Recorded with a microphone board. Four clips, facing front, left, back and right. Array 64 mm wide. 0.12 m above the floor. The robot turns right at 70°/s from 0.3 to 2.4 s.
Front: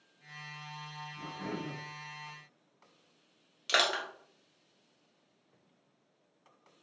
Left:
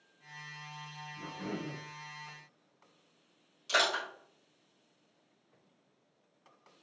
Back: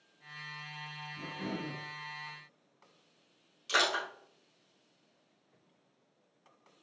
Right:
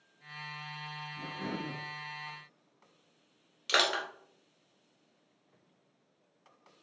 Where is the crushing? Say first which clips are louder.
Right 1 dB, even; 50° right, 1.3 m.